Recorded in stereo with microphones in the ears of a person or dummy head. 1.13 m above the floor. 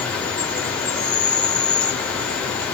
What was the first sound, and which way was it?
An insect, 10° left (ahead or behind).